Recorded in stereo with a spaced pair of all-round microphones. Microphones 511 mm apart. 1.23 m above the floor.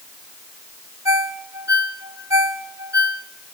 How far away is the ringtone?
About 1.2 m.